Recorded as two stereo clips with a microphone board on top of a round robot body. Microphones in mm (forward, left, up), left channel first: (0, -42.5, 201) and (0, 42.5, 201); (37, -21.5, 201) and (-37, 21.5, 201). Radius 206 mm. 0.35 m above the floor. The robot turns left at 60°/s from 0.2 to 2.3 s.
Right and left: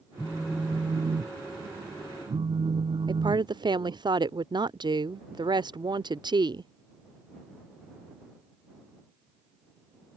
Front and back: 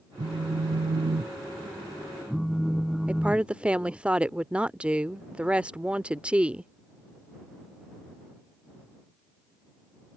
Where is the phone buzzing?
175° right; by 4.0 s 60° left.